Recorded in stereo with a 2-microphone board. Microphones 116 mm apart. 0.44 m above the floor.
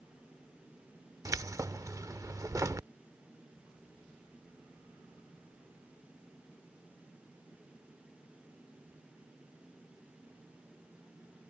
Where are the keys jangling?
30° right (ahead or behind).